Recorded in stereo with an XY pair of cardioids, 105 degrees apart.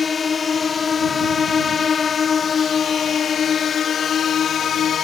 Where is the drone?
40° left; by 5.0 s 65° left.